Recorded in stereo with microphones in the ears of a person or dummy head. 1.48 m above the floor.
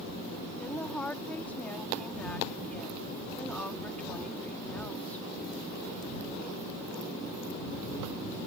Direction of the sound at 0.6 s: 5° left (ahead or behind).